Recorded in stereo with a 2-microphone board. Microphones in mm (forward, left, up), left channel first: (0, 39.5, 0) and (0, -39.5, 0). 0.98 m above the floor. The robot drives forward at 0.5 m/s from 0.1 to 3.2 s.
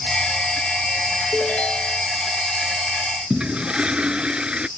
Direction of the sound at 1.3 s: 15° left (ahead or behind).